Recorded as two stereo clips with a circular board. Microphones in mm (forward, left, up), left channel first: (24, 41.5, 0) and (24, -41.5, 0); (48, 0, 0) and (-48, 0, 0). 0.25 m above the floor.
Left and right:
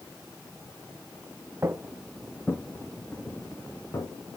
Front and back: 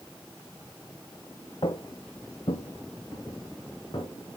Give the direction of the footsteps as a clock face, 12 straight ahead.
1 o'clock.